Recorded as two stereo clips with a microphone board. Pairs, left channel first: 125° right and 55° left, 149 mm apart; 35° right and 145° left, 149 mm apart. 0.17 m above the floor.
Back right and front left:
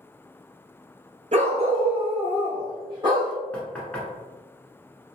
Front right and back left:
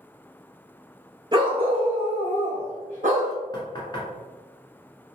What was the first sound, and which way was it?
A dog barking, 90° left.